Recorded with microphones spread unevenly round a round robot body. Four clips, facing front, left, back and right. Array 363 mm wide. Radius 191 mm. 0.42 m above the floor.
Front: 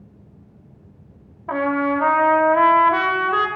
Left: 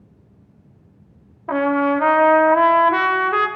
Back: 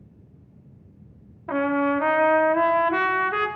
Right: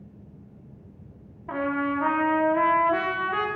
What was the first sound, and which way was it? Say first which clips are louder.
A trumpet: left 9 dB, front 2 dB; 80° left.